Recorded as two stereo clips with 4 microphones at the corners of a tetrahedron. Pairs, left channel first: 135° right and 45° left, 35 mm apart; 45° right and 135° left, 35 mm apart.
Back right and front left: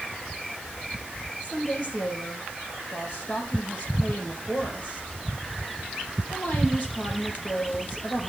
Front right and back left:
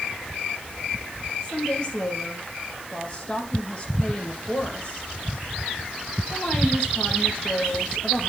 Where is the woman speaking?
105° right, 4 m.